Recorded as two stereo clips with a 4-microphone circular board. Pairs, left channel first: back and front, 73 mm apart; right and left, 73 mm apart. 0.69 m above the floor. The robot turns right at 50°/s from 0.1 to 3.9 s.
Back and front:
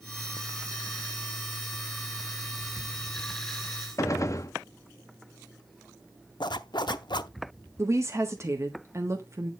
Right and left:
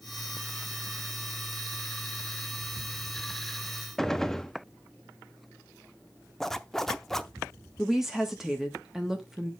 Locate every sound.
4.0 s a gunshot: 170° right, 0.6 m
6.4 s a zipper: 175° right, 0.6 m
7.8 s a woman speaking: 10° left, 1.4 m